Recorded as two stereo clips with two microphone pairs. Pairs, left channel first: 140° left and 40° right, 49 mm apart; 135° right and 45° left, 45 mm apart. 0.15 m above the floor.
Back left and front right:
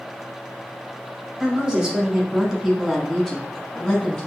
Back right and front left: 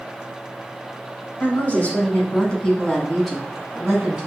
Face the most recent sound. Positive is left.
turn(degrees=90)